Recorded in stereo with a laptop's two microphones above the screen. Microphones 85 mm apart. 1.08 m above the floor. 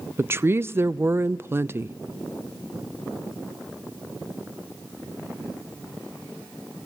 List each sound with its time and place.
0.2 s a woman speaking: 25° right (ahead or behind), 0.6 m